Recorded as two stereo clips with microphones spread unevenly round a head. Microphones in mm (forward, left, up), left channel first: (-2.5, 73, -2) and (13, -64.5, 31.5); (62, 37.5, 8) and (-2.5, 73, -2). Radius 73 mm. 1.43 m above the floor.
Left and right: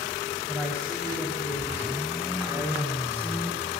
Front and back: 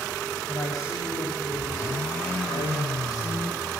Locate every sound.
0.5 s a woman speaking: straight ahead, 6 m; by 3.7 s 10° right, 3 m